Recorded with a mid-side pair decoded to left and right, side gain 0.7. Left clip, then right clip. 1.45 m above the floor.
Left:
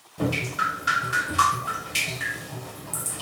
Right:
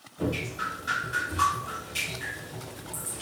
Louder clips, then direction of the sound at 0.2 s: Left 6 dB; 55° left.